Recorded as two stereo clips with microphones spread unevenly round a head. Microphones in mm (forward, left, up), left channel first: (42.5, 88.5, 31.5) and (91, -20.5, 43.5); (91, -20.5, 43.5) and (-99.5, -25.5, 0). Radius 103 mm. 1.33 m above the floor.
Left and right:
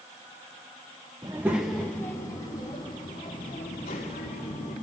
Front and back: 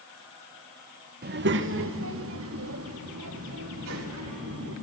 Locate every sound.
1.2 s a child speaking: 135° right, 1.1 m; by 4.7 s 165° left, 4 m